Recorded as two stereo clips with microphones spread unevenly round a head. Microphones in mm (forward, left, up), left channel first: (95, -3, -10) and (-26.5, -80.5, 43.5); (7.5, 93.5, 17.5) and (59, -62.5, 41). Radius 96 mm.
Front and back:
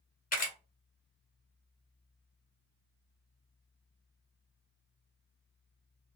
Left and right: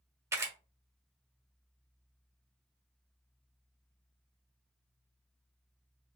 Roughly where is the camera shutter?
Ahead.